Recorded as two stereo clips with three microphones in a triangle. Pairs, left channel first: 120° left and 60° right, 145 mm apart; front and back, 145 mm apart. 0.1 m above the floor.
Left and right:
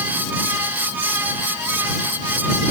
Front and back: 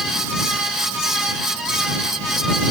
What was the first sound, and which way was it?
Only background noise.